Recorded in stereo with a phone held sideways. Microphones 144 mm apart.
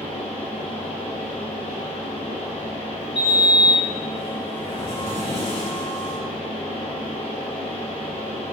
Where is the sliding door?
40° left (ahead or behind), 1.8 m.